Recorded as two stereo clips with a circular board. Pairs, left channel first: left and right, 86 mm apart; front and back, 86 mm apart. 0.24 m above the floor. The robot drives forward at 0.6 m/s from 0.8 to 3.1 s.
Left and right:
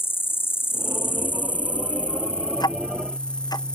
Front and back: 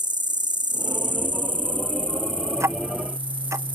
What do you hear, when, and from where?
0.0 s an insect: 150° left; by 3.8 s 165° left
2.6 s ticking: 125° left